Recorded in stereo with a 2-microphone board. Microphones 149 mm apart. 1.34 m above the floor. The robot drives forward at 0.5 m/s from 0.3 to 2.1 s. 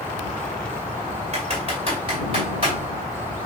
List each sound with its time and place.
1.3 s typing on a keyboard: 45° right (ahead or behind), 2.5 m; by 2.7 s 40° right (ahead or behind), 3 m